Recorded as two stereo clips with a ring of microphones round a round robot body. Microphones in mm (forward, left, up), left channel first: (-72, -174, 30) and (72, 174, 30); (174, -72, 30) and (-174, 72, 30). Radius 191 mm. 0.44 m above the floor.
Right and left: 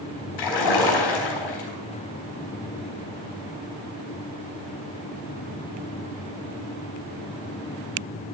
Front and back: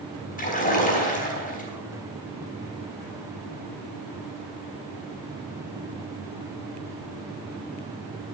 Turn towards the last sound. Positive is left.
turn(degrees=-90)